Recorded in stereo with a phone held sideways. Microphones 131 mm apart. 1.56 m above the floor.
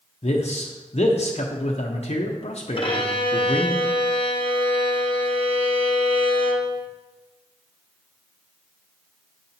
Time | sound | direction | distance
0.2 | a man speaking | 50° left (ahead or behind) | 0.7 m
2.8 | a violin | 40° left (ahead or behind) | 0.8 m